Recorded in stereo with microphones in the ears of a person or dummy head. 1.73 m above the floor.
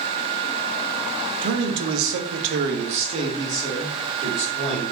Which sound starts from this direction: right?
A man speaking, at 1.4 s.